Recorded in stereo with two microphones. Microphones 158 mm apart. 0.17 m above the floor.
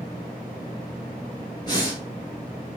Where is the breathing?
30° left (ahead or behind), 1.7 m.